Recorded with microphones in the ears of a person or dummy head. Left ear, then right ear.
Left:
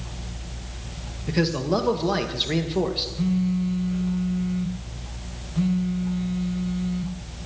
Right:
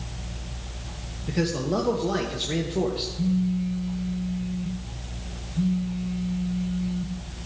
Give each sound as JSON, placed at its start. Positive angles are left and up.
{"t": 1.3, "sound": "a man speaking", "side_deg": 25, "distance_m": 1.2}
{"t": 3.2, "sound": "a phone buzzing", "side_deg": 40, "distance_m": 1.0}